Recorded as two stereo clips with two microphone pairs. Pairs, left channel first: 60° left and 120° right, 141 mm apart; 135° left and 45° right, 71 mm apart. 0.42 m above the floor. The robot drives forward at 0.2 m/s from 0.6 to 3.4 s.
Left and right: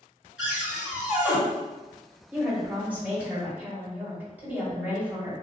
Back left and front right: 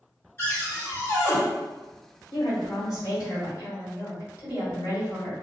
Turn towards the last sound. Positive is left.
turn(degrees=160)